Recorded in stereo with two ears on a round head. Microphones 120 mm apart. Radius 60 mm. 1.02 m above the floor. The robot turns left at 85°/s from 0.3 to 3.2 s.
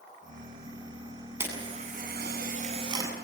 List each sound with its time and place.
1.4 s a camera shutter: 20° right (ahead or behind), 8 m; by 3.1 s 15° right (ahead or behind), 8 m